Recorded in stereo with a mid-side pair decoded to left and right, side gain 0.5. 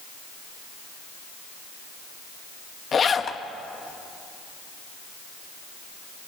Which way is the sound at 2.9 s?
40° left.